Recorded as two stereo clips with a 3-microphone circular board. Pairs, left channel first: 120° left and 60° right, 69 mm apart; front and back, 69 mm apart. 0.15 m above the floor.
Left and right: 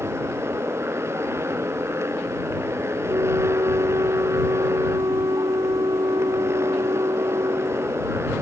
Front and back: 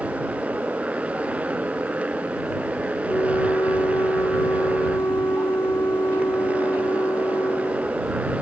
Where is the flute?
40° right.